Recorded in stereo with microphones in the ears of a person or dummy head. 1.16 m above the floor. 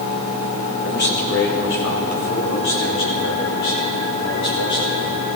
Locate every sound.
0.8 s a man speaking: 55° left (ahead or behind), 1.7 m; by 5.4 s 65° left (ahead or behind), 6.5 m